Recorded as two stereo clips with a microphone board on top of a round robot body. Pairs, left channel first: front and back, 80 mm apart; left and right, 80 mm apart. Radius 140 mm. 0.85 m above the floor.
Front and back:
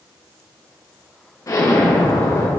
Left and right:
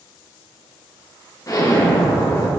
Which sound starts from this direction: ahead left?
An explosion, at 1.5 s.